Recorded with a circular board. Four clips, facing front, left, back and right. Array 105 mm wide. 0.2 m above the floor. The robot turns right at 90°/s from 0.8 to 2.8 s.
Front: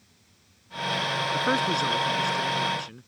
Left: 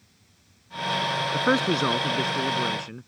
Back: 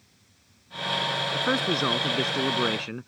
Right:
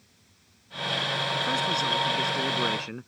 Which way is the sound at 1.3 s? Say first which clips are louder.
Left 7 dB, front 1 dB; 75° left.